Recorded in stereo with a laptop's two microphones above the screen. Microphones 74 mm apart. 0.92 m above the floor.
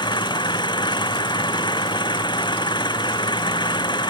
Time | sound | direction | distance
0.0 | an engine running | 85° left | ?